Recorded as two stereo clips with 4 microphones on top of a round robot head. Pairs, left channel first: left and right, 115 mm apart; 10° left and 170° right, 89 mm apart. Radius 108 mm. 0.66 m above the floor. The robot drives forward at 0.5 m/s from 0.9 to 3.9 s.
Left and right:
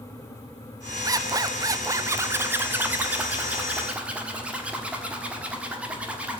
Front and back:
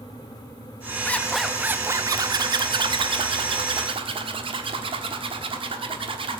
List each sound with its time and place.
1.1 s a zipper: 50° right, 0.5 m; by 6.4 s 170° right, 1.3 m